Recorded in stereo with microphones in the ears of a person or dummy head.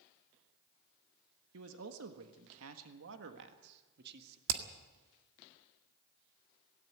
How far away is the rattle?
I don't hear a rattle.